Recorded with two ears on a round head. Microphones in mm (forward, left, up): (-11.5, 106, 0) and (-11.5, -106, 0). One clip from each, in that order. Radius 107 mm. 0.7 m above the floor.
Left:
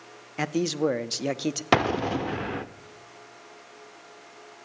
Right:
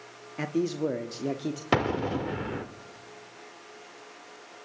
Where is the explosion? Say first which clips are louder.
Left 3 dB; 20° left (ahead or behind), 0.7 m.